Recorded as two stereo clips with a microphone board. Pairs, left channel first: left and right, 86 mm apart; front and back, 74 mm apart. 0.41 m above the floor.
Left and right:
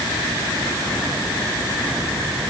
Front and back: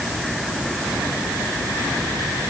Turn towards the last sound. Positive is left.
No sound to turn to.